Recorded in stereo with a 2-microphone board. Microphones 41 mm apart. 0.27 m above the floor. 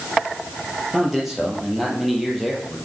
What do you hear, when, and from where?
0.9 s a man speaking: 5° right (ahead or behind), 5 m; by 2.8 s centre (ahead or behind), 6.5 m